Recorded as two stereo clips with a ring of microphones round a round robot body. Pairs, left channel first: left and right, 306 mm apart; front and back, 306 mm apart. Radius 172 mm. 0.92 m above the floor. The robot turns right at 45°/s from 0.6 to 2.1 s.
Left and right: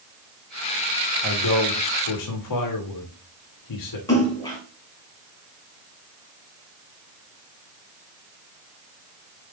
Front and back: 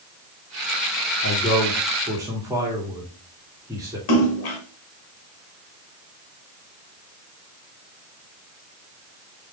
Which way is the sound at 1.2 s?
60° left.